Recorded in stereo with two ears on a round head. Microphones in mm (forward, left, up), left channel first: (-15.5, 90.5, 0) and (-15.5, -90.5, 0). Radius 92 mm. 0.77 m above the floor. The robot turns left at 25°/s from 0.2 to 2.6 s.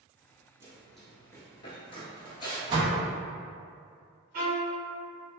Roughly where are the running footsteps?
Centre.